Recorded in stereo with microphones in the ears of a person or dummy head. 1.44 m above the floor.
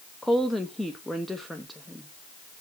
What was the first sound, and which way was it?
A woman speaking, 5° left (ahead or behind).